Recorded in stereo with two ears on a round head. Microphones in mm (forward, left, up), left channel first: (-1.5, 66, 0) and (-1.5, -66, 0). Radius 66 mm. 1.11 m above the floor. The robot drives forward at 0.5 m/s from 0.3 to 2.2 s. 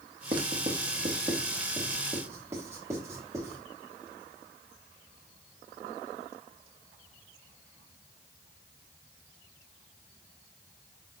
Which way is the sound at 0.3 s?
35° right (ahead or behind).